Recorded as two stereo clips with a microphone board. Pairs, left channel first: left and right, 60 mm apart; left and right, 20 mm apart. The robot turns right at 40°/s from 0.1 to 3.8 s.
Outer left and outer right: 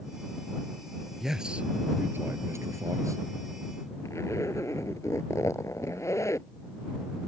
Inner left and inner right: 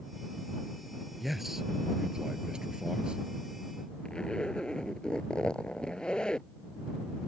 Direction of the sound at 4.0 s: 60° left (ahead or behind).